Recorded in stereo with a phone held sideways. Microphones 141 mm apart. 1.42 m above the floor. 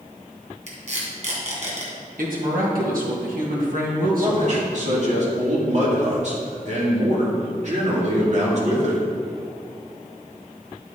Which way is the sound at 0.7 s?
55° right (ahead or behind).